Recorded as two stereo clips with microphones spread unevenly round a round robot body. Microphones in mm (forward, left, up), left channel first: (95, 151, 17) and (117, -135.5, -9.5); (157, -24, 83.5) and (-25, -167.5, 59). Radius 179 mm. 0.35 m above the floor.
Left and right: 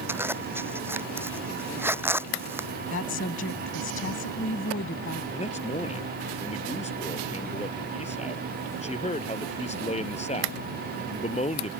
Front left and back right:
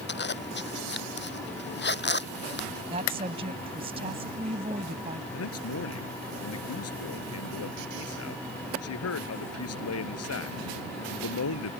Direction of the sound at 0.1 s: 5° right.